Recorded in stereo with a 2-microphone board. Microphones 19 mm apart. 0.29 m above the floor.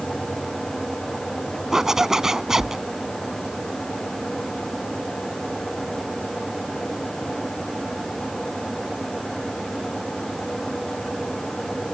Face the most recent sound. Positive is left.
turn(degrees=-25)  # may be behind; listen again after turning